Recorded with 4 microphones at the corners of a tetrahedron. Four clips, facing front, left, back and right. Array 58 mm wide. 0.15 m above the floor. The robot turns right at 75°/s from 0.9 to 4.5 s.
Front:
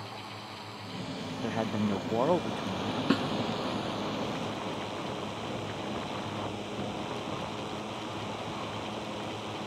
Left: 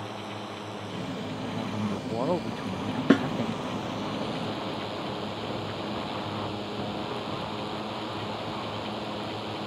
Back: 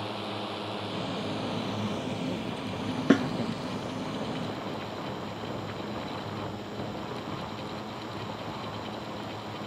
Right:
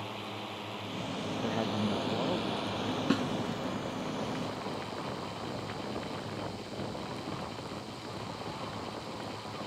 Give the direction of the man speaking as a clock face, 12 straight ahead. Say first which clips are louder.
Right 1 dB, front 1 dB; 1 o'clock.